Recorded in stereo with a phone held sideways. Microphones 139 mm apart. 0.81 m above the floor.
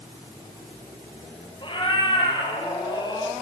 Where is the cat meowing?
35° left (ahead or behind), 4.5 m; by 3.3 s 30° left (ahead or behind), 3.5 m.